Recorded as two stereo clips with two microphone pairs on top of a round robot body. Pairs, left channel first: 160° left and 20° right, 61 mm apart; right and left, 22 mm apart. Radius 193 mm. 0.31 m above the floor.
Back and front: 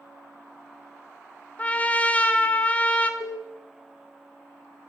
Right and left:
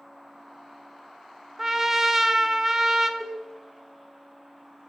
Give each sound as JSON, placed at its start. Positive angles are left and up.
{"t": 1.6, "sound": "a trumpet", "azimuth_deg": 135, "distance_m": 1.2}
{"t": 3.2, "sound": "a cowbell", "azimuth_deg": 170, "distance_m": 3.5}